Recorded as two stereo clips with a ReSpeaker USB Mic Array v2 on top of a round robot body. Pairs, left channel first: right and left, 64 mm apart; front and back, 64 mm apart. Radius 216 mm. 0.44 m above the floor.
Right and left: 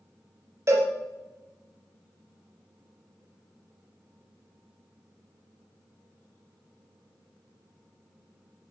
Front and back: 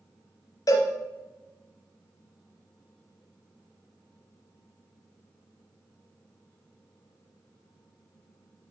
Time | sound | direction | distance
0.7 | a cowbell | 40° left | 0.8 m